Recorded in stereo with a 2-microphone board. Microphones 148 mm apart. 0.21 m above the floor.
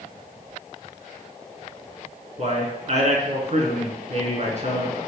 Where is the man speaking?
50° right (ahead or behind), 3 m.